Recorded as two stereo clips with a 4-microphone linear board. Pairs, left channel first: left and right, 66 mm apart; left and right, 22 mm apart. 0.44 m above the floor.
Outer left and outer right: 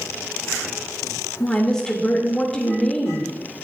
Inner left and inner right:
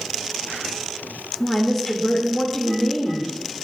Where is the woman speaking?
10° left (ahead or behind), 0.9 m.